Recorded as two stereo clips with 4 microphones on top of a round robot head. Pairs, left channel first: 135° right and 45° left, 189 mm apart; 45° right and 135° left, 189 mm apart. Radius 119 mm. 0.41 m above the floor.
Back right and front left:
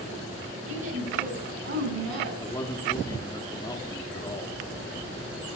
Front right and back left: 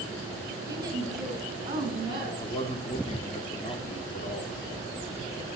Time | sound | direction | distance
0.7 | a woman speaking | 60° left | 3 m
2.4 | a man speaking | 75° right | 1.0 m